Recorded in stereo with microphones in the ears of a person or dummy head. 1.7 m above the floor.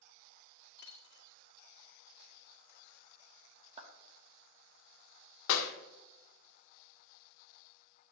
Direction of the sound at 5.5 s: 70° left (ahead or behind).